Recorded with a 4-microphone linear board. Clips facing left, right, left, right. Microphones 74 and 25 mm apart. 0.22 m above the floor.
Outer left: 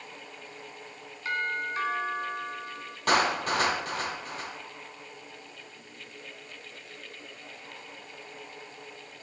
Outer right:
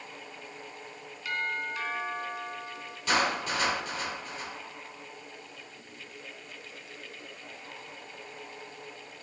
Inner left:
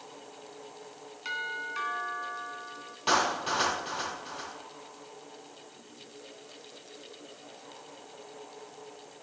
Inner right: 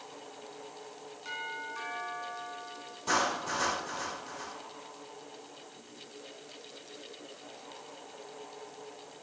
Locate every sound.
1.2 s a doorbell: 35° left (ahead or behind), 2.5 m
3.1 s a clap: 55° left (ahead or behind), 6.5 m